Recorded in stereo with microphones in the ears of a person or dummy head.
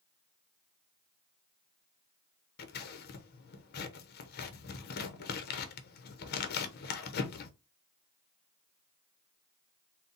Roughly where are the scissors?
Left.